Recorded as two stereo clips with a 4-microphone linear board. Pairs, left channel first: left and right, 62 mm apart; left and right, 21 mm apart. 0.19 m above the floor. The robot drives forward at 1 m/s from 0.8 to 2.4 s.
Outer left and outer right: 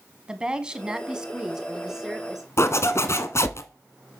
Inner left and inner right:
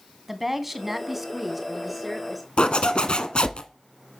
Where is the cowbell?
No cowbell in this recording.